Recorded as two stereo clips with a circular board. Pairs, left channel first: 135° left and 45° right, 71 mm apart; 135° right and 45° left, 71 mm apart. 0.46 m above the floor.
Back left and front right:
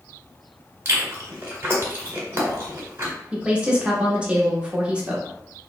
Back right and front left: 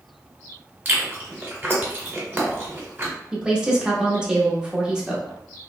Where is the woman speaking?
5° right, 0.7 m.